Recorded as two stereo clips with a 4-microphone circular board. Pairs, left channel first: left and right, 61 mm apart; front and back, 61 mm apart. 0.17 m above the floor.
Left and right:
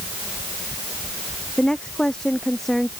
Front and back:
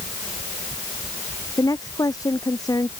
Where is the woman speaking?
15° left; by 2.9 s 5° left.